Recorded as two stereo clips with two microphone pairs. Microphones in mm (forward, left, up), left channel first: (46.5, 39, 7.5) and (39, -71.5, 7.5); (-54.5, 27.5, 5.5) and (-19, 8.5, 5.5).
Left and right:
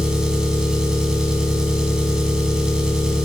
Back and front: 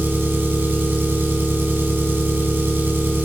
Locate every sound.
0.0 s an engine running: 10° right, 1.2 m